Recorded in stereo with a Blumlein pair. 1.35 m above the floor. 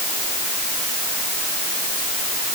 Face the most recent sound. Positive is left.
No sound to turn to.